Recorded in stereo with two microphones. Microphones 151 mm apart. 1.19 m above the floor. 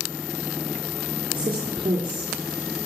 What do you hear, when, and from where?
1.3 s a woman speaking: 35° right (ahead or behind), 3.5 m